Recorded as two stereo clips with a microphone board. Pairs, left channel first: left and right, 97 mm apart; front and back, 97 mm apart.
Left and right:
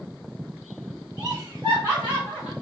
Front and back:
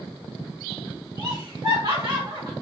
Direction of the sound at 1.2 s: 150° right.